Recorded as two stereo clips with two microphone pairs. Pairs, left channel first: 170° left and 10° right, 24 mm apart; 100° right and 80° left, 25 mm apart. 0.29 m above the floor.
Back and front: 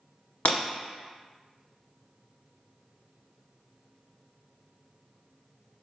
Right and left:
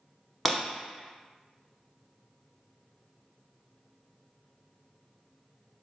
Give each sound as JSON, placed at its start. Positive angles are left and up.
{"t": 0.5, "sound": "breaking glass", "azimuth_deg": 165, "distance_m": 0.7}